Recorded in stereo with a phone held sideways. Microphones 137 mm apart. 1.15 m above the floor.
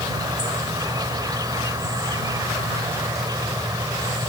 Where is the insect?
30° right (ahead or behind).